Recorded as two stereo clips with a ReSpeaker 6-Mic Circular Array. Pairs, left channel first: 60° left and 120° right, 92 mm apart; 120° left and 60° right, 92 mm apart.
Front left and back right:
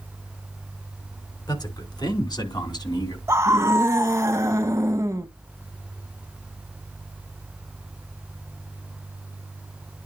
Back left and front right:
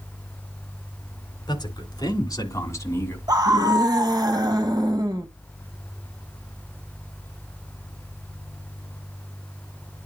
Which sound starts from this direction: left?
A man speaking, at 1.5 s.